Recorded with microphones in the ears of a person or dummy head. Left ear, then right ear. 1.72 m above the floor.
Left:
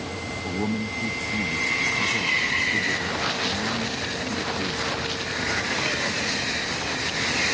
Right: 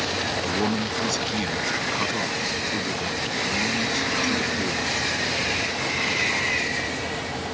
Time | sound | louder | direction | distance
0.5 | a man speaking | right 4 dB | 65° right (ahead or behind) | ?